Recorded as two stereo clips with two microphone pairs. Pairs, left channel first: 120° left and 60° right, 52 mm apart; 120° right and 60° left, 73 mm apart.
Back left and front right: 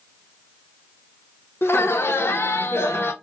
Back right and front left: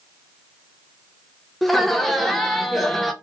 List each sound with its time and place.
1.6 s laughter: 150° left, 0.6 m